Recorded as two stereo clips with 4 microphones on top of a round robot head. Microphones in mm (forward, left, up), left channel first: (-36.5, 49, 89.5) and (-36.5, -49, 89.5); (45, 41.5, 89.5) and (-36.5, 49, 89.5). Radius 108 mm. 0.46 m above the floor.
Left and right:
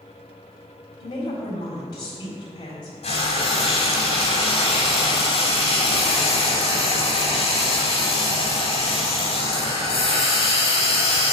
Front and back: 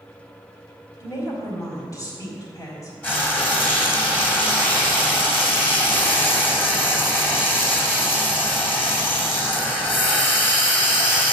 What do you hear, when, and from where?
1.0 s a woman speaking: 45° left, 3.5 m
3.0 s frying: 65° left, 3 m